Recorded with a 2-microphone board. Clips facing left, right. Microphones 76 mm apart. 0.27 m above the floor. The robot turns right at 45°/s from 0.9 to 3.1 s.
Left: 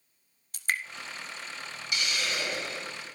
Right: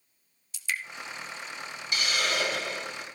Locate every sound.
0.5 s dripping: 45° left (ahead or behind), 0.9 m
1.9 s a hiss: 135° right, 4 m; by 3.1 s 85° right, 4 m